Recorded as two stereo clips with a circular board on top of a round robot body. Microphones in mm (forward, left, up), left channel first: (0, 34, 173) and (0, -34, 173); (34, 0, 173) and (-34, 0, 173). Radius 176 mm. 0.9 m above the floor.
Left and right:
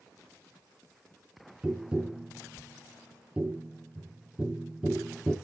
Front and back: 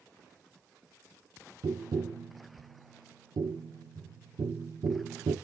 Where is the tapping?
170° right, 0.7 m.